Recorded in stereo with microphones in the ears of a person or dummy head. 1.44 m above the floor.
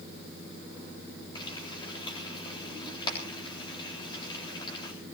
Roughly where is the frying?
Left.